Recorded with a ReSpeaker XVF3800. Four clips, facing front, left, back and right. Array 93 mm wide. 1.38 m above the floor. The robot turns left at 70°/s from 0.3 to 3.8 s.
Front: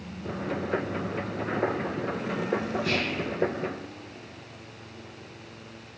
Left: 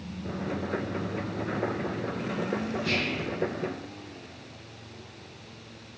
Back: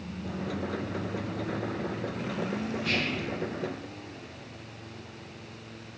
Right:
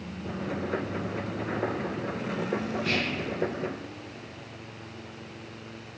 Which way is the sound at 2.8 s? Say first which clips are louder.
Even, front 2 dB; 125° right.